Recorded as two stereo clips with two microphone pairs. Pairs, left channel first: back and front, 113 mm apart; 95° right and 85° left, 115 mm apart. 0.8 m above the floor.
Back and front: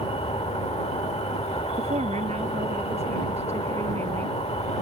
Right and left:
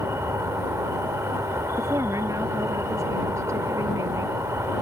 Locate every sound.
0.0 s an insect: 155° left
1.8 s a woman speaking: 20° left